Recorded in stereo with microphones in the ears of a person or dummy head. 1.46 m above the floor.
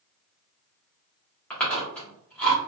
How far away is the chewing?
About 1.3 m.